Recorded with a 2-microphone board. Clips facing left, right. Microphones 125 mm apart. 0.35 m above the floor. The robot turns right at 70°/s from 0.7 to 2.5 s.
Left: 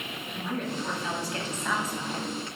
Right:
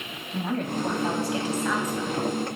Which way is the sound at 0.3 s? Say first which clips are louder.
Right 5 dB; 70° right.